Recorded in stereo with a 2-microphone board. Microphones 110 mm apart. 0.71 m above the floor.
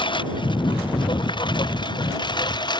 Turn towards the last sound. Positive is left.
turn(degrees=40)  # may be behind; listen again after turning